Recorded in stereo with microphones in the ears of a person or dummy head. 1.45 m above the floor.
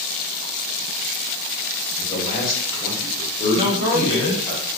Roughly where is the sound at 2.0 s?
Left.